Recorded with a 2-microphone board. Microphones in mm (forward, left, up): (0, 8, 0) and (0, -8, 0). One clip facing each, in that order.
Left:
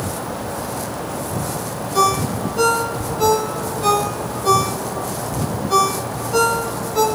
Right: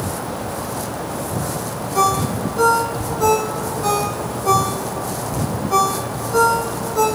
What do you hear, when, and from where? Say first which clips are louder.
1.9 s a ringtone: even; 70° left (ahead or behind), 3 m